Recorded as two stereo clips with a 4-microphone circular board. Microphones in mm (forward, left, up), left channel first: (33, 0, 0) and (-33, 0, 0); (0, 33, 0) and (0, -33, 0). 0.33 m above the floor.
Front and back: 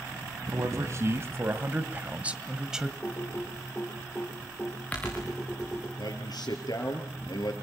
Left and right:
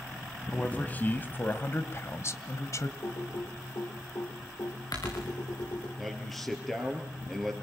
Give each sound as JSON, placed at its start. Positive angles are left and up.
{"t": 0.5, "sound": "a man speaking", "azimuth_deg": 155, "distance_m": 2.0}
{"t": 3.0, "sound": "typing on a keyboard", "azimuth_deg": 70, "distance_m": 8.5}
{"t": 6.0, "sound": "a man speaking", "azimuth_deg": 0, "distance_m": 5.5}